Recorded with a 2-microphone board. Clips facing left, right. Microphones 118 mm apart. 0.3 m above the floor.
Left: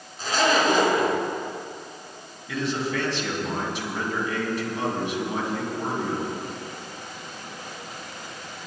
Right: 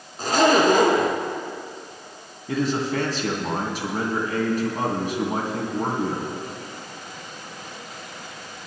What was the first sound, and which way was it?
A zipper, 50° right (ahead or behind).